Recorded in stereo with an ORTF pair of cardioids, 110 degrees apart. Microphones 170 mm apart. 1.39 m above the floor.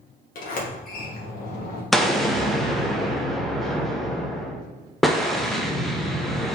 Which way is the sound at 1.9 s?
Straight ahead.